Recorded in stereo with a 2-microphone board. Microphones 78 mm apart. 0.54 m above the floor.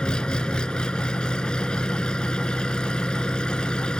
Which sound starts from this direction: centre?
An engine running, at 0.0 s.